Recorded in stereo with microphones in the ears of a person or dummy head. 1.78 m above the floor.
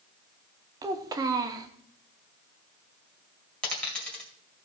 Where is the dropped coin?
10° left (ahead or behind), 1.9 m.